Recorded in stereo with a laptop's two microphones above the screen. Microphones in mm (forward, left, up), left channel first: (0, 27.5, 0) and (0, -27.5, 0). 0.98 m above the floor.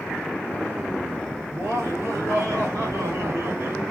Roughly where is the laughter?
Right.